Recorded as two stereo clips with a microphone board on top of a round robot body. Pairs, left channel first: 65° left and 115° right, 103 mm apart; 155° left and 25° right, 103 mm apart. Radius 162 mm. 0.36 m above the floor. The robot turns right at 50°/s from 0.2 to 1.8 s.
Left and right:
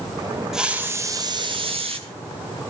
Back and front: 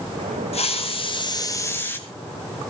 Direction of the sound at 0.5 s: 165° left.